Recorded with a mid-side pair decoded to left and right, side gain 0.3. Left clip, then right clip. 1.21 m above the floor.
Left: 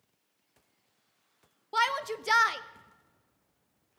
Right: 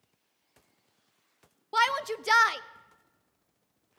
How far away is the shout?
About 0.6 m.